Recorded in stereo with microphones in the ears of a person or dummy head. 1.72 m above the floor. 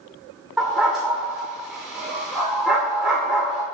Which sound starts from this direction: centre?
A dog barking, at 0.6 s.